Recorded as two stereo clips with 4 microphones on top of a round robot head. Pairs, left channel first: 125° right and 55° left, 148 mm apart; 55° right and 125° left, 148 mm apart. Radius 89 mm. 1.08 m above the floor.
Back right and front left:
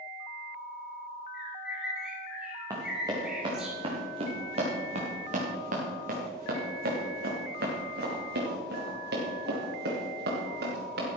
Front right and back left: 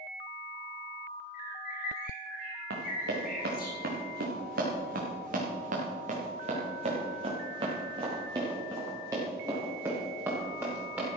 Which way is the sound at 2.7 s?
125° left.